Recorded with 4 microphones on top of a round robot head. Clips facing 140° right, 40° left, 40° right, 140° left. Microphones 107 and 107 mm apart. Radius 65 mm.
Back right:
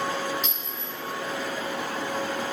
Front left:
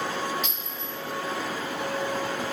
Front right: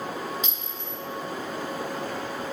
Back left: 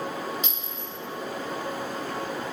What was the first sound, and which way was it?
A clink, 50° right.